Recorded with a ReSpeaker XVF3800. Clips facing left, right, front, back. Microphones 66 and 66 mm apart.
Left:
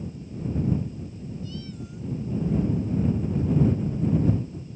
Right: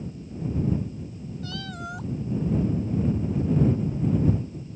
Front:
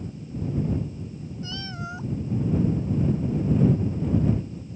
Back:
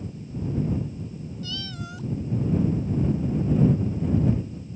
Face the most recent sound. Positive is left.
turn(degrees=-65)